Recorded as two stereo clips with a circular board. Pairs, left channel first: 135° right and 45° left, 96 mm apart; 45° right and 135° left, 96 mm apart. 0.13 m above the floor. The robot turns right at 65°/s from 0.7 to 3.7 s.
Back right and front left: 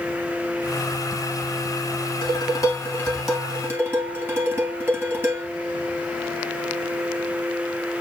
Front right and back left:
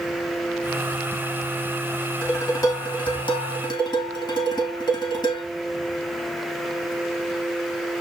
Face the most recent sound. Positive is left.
turn(degrees=-20)